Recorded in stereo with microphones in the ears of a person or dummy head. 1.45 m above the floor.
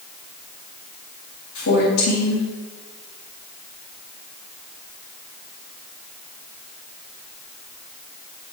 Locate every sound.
1.6 s a woman speaking: 75° left (ahead or behind), 2 m